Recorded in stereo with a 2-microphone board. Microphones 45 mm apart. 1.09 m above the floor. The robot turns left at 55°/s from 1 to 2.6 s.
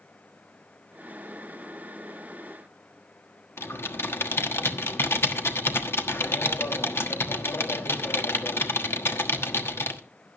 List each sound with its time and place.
3.6 s typing on a keyboard: 60° left (ahead or behind), 1.3 m